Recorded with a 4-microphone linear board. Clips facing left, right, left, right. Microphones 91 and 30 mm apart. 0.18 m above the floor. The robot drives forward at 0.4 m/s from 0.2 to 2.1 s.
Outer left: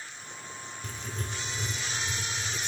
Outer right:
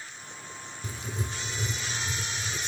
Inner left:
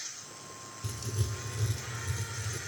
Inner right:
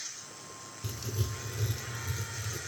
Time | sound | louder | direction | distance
0.8 | writing | outer right 3 dB, even | 10° right (ahead or behind) | 0.5 m